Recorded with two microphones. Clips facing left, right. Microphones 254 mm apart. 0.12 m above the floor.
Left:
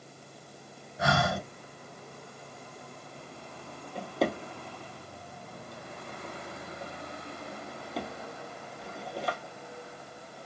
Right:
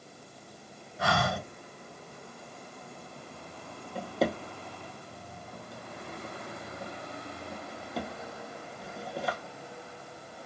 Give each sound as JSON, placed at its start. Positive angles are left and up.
{"t": 1.0, "sound": "breathing", "side_deg": 25, "distance_m": 1.1}
{"t": 4.0, "sound": "a drawer", "side_deg": 0, "distance_m": 1.1}